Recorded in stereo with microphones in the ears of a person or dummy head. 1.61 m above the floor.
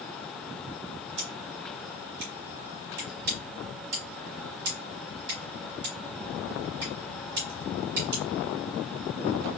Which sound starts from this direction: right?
Scissors, at 1.2 s.